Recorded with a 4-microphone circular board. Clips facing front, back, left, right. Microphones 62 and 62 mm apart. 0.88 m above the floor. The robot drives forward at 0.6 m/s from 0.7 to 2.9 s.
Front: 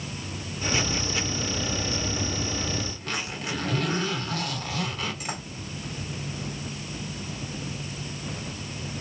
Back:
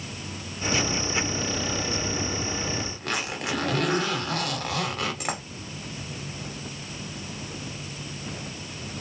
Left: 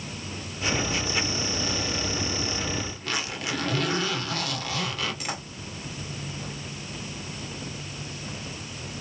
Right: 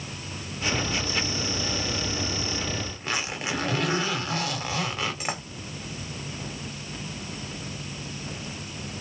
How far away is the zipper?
About 2.5 m.